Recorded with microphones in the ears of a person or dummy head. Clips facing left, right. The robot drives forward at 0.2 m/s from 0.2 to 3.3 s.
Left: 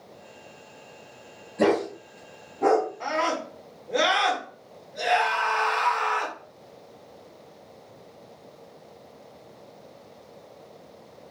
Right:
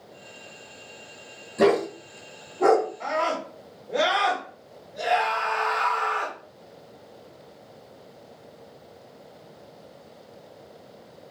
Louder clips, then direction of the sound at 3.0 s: Even; 5° left (ahead or behind).